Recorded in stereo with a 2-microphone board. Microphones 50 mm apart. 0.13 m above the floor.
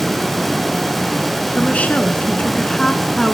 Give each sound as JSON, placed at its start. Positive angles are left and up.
{"t": 1.6, "sound": "a woman speaking", "side_deg": 35, "distance_m": 1.2}